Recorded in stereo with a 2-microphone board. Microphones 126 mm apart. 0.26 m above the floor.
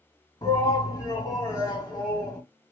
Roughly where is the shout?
Left.